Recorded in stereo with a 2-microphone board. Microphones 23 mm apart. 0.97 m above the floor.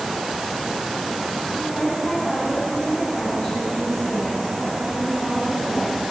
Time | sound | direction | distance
1.6 | a woman speaking | 35° left (ahead or behind) | 8.5 m